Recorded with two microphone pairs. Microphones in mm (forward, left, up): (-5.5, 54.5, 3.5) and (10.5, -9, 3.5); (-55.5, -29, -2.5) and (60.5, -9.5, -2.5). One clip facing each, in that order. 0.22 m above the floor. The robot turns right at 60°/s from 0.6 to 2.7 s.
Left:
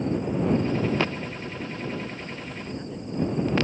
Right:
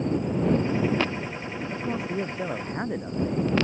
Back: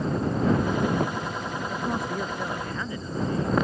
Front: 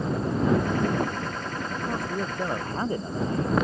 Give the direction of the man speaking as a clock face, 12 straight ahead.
3 o'clock.